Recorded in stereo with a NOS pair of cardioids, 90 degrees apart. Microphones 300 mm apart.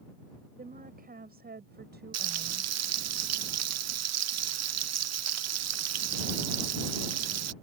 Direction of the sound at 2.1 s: 55° right.